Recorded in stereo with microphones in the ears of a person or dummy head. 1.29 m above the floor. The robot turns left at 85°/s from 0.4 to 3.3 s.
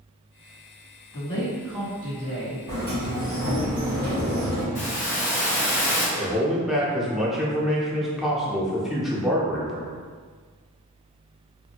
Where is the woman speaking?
45° left, 1.8 m; by 2.6 s 80° right, 1.8 m.